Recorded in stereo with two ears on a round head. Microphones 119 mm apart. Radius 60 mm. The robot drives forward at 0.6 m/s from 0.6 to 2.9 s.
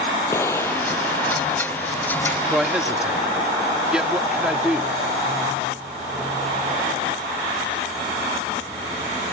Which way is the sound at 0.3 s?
20° left (ahead or behind).